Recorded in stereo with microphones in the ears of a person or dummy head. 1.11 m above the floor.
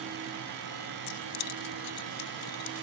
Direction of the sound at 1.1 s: 75° left (ahead or behind).